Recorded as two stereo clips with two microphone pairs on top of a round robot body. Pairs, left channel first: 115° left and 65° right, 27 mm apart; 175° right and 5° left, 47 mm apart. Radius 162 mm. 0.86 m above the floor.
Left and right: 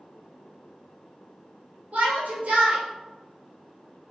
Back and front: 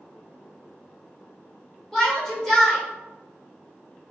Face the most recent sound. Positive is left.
turn(degrees=-90)